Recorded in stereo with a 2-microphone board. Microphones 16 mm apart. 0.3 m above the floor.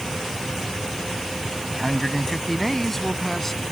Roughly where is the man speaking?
Centre.